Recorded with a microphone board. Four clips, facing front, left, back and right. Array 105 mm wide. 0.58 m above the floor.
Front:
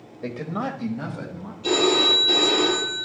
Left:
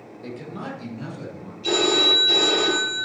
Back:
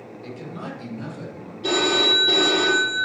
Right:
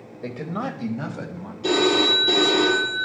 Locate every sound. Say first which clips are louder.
0.2 s a man speaking: right 5 dB, front 7 dB; 35° right, 2 m; by 1.5 s 65° right, 3 m
1.6 s a phone ringing: right 2 dB, front 1 dB; 120° right, 7.5 m